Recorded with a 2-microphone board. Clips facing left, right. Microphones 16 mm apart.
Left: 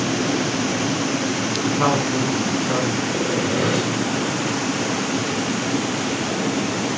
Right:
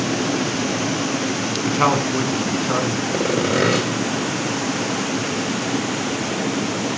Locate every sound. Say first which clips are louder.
1.6 s a man speaking: right 2 dB; 30° right (ahead or behind), 1.7 m
3.1 s sawing: right 2 dB; 80° right, 2 m